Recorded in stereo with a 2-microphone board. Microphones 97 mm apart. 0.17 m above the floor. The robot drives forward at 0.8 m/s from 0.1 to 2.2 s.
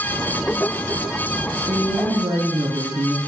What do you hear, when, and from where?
1.7 s a woman speaking: 55° right (ahead or behind), 2.5 m; by 3.2 s 50° right (ahead or behind), 2.5 m